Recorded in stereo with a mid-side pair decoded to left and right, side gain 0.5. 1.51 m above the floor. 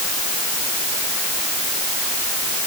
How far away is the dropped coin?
No dropped coin in this recording.